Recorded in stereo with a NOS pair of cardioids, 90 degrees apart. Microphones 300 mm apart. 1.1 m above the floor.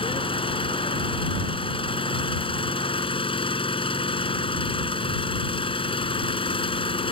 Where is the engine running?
20° left.